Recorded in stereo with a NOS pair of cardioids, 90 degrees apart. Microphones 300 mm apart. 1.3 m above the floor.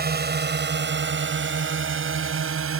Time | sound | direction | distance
0.0 | a drone | 30° right | ?